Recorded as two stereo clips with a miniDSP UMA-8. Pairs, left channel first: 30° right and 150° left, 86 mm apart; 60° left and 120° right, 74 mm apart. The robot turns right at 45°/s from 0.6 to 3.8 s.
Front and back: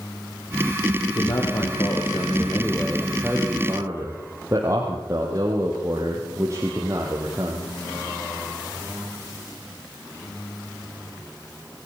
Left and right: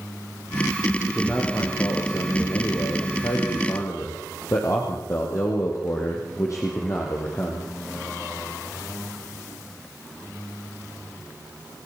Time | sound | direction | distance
1.1 | a man speaking | 25° right | 5 m